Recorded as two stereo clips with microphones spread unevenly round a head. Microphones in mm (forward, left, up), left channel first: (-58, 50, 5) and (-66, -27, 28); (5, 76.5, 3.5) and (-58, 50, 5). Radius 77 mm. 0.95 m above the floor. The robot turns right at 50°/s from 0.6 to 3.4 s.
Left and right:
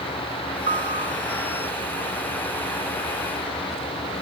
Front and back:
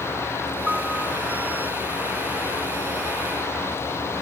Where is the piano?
75° right; by 1.2 s 50° right.